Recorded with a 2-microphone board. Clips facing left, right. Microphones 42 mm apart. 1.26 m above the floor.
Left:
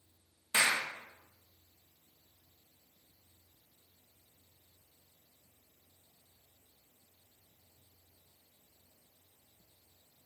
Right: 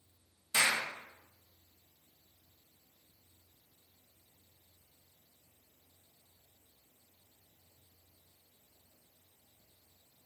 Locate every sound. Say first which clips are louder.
0.5 s a clap: left 1 dB; 30° left (ahead or behind), 1.6 m